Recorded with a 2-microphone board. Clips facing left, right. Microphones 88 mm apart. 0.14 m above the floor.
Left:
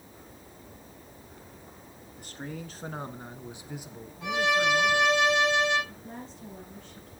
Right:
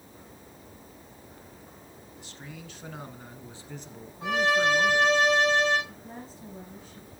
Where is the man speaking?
50° left (ahead or behind), 1.4 m; by 5.2 s 25° right (ahead or behind), 1.4 m.